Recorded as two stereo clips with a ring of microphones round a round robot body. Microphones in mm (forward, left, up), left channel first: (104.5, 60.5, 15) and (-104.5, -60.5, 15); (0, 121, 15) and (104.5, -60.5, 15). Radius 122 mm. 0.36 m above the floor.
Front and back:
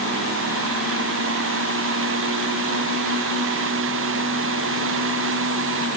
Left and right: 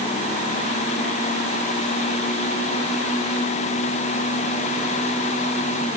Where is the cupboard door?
I don't hear a cupboard door.